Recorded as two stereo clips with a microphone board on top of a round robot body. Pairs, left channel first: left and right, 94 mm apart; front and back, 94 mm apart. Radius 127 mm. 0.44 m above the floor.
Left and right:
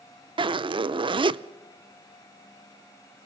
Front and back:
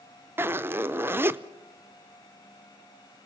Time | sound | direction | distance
0.4 | a zipper | 115° right | 0.6 m